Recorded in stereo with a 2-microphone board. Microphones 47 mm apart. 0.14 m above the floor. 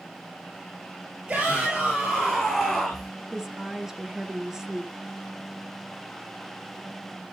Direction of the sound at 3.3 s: 10° right (ahead or behind).